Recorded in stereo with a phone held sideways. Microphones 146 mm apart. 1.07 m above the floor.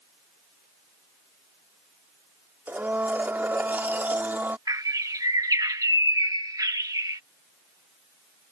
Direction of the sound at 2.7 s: 15° right (ahead or behind).